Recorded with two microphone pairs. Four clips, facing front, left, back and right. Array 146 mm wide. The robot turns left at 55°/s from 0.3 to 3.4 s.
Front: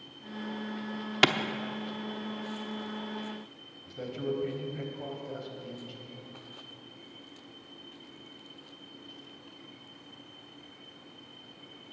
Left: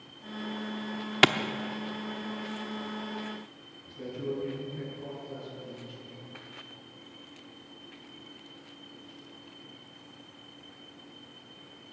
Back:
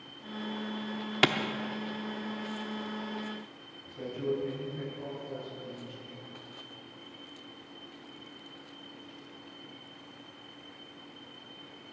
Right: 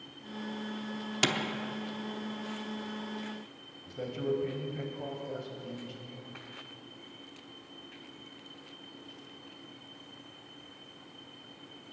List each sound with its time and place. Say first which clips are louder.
1.2 s a clap: left 8 dB, front 1 dB; 65° left, 0.7 m; by 1.3 s 60° left, 0.7 m
3.9 s a man speaking: right 2 dB, back 1 dB; 60° right, 3.5 m